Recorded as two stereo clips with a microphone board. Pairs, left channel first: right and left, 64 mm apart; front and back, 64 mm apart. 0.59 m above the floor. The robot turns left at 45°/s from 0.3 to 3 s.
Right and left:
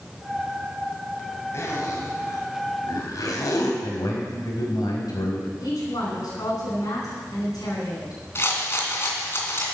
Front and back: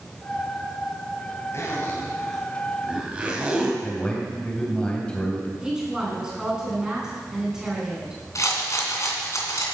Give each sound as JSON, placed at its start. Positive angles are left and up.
{"t": 1.5, "sound": "a zipper", "azimuth_deg": -45, "distance_m": 2.5}
{"t": 3.8, "sound": "a man speaking", "azimuth_deg": -75, "distance_m": 3.5}
{"t": 5.6, "sound": "a woman speaking", "azimuth_deg": -100, "distance_m": 4.5}
{"t": 8.3, "sound": "a rattle", "azimuth_deg": -40, "distance_m": 2.5}